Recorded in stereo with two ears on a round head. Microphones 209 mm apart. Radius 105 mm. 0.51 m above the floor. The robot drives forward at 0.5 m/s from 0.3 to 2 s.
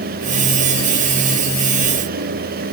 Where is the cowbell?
No cowbell in this recording.